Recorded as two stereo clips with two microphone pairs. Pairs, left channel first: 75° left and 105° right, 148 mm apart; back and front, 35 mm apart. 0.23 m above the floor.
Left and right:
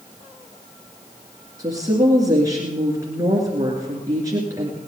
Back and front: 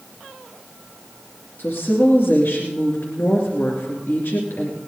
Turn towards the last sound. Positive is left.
turn(degrees=-170)